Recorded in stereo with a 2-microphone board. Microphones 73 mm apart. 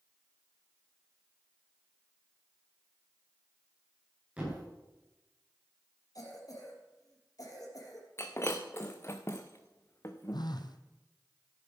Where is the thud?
20° right (ahead or behind), 6.5 m.